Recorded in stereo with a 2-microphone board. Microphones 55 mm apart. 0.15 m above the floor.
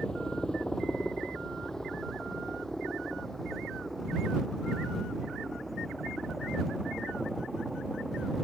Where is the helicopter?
15° left (ahead or behind); by 8.4 s centre (ahead or behind).